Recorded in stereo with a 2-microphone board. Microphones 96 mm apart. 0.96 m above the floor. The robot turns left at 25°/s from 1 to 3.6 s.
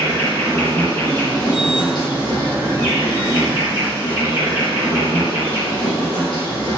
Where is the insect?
135° left, 1.4 m; by 6.8 s 70° left, 1.4 m.